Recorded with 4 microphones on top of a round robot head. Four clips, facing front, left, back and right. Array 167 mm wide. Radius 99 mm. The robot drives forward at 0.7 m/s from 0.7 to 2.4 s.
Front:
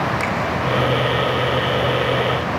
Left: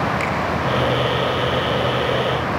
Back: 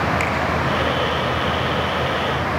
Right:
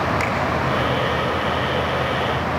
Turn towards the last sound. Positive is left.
turn(degrees=-80)